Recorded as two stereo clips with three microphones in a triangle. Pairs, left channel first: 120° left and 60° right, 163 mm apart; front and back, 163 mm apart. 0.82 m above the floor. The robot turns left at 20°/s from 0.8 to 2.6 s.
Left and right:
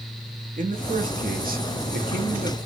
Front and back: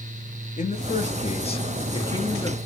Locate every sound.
0.6 s a man speaking: 35° right, 1.1 m; by 2.6 s 70° right, 1.1 m